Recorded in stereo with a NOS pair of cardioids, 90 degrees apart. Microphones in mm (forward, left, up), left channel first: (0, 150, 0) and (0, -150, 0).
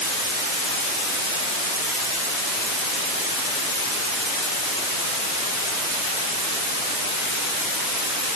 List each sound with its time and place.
Only background noise.